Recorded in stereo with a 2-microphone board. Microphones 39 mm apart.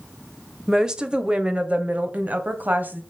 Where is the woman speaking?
10° right (ahead or behind), 1.1 m; by 3.0 s 50° right (ahead or behind), 1.6 m.